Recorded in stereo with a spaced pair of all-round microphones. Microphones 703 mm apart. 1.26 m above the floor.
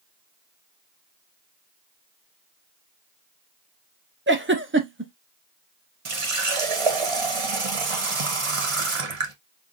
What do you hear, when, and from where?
4.3 s a giggle: 20° right (ahead or behind), 0.6 m
6.0 s a running tap: 50° right (ahead or behind), 0.8 m